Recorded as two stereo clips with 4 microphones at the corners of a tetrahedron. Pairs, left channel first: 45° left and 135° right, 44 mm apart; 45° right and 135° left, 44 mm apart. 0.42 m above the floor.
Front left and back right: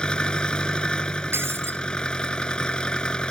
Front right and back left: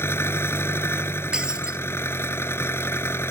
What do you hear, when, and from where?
0.0 s an engine running: 25° right
1.3 s breaking glass: 155° right